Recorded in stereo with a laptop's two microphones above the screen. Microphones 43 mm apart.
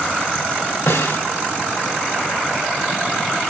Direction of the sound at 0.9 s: 85° left.